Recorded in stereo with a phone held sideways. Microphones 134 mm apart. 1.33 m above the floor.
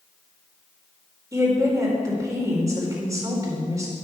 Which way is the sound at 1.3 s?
25° right (ahead or behind).